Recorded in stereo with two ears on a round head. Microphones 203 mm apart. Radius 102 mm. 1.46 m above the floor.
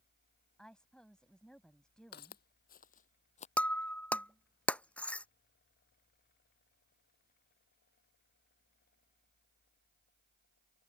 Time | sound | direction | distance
0.6 | a woman speaking | 5° left (ahead or behind) | ?
2.1 | footsteps | 45° left (ahead or behind) | ?
3.6 | breaking glass | 5° left (ahead or behind) | ?